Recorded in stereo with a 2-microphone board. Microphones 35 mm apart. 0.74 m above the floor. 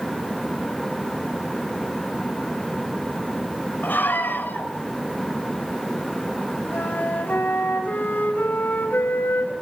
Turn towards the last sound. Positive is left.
turn(degrees=75)  # may be behind; listen again after turning